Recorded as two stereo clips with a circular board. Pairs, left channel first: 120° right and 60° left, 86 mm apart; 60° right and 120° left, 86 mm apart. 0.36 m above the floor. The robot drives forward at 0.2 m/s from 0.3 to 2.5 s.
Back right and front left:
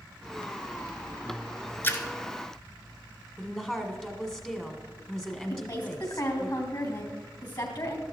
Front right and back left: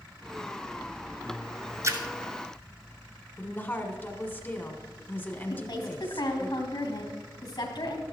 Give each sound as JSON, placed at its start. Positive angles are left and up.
{"t": 1.8, "sound": "a splash", "azimuth_deg": 175, "distance_m": 1.1}
{"t": 3.4, "sound": "a woman speaking", "azimuth_deg": -55, "distance_m": 1.4}
{"t": 5.5, "sound": "a woman speaking", "azimuth_deg": -95, "distance_m": 3.0}